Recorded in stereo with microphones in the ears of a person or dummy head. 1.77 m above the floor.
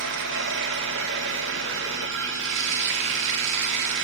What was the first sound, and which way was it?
Running water, 65° right (ahead or behind).